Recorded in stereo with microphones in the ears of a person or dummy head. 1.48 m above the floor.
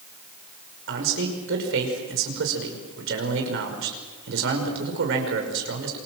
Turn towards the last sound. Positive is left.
turn(degrees=-70)  # may be behind; listen again after turning